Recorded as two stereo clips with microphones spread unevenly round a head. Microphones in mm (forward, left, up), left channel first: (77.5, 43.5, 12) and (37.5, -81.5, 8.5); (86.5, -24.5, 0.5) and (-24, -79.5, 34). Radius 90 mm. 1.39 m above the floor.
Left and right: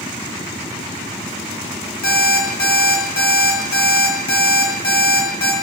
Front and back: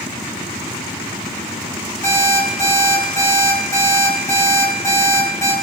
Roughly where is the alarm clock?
Left.